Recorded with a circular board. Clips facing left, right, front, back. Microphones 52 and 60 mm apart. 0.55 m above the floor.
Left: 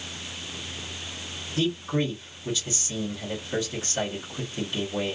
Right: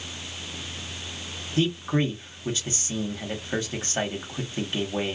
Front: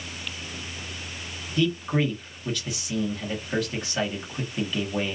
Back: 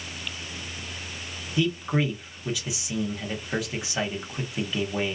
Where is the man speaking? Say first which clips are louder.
Right 2 dB, front 1 dB; 105° right, 1.3 m.